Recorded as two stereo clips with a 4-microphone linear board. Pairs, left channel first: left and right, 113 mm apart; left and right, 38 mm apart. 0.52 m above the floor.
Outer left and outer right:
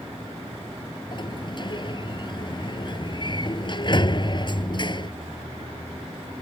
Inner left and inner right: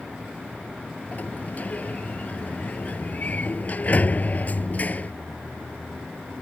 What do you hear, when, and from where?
1.1 s a sliding door: 45° left (ahead or behind)